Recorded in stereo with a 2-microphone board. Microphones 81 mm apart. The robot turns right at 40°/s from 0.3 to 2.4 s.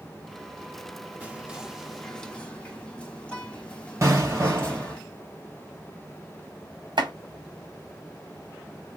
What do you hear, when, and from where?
1.2 s whispering: 30° right, 1.5 m; by 5.0 s 20° left, 1.5 m
4.0 s an explosion: 35° right (ahead or behind), 3 m
7.0 s chopping: 70° right (ahead or behind), 2 m